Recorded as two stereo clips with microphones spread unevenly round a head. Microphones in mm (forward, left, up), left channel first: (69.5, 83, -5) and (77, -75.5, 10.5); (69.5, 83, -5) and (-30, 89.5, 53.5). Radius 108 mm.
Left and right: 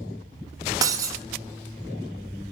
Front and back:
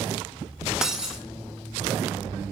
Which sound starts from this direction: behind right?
Breaking glass, at 0.8 s.